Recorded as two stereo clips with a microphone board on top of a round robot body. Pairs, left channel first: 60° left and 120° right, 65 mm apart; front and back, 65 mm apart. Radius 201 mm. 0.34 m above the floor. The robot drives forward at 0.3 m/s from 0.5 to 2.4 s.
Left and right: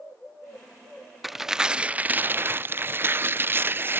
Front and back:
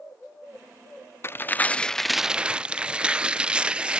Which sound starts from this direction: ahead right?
Tearing paper, at 1.2 s.